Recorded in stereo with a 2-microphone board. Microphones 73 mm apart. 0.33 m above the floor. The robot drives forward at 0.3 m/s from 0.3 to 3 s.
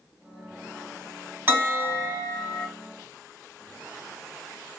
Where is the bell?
25° right (ahead or behind), 1.8 m.